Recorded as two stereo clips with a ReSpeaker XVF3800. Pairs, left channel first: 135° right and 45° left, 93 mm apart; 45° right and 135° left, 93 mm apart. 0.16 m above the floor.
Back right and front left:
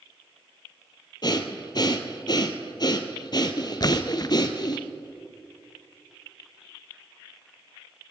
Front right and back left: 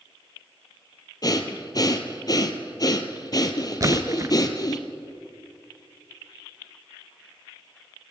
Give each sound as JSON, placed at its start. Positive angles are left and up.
{"t": 1.2, "sound": "breathing", "azimuth_deg": -90, "distance_m": 1.1}
{"t": 3.8, "sound": "a splash", "azimuth_deg": -175, "distance_m": 0.5}